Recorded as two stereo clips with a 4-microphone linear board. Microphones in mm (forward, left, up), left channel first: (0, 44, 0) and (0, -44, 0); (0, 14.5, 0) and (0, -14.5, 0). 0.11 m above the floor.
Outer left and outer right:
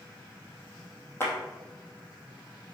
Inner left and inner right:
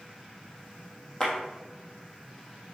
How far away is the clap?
About 3 m.